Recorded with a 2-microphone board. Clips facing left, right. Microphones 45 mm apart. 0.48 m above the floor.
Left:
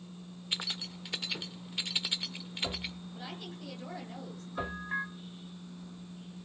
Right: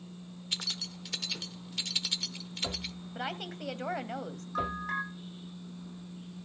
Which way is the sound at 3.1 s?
60° right (ahead or behind).